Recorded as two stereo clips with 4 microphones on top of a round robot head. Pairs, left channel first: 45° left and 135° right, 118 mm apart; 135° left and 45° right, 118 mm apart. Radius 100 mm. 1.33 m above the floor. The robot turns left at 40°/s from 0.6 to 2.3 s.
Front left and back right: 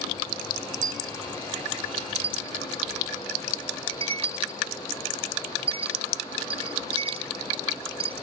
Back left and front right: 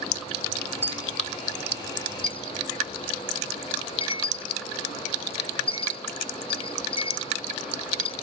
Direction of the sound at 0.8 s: 120° right.